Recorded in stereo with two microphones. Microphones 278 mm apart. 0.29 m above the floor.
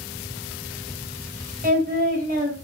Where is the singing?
30° right (ahead or behind), 1.4 m.